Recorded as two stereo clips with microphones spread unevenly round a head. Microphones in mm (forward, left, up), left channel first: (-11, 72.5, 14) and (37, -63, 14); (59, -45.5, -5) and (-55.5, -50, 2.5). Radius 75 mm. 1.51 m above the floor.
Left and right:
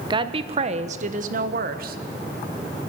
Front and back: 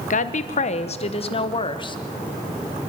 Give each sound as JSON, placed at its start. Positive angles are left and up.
{"t": 0.1, "sound": "a woman speaking", "azimuth_deg": -10, "distance_m": 1.1}